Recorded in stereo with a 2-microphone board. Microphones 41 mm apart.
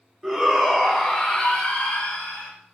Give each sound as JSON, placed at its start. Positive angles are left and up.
{"t": 0.2, "sound": "a shout", "side_deg": -15, "distance_m": 1.1}